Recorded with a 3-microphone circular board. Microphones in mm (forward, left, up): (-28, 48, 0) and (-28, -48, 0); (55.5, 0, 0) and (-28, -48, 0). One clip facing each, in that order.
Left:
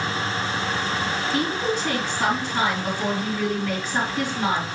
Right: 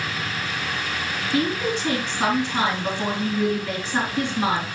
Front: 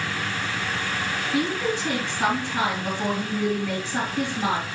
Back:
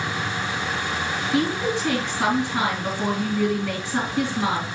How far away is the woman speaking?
About 3.5 m.